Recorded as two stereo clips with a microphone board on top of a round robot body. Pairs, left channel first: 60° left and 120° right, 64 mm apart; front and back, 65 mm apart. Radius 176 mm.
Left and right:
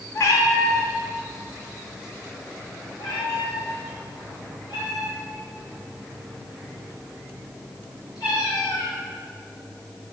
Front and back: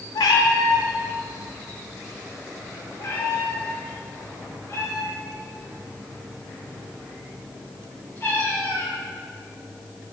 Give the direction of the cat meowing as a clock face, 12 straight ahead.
12 o'clock.